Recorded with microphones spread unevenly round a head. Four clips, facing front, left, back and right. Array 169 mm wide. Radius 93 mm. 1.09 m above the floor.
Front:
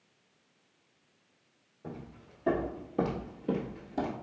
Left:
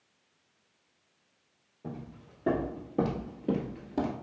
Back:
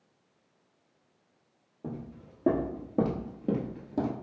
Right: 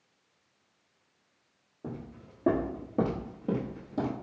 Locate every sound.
1.8 s footsteps: 150° right, 1.9 m; by 4.1 s 130° left, 1.4 m